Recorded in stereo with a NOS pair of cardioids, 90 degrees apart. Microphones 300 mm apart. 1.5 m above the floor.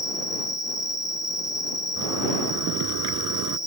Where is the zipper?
70° right.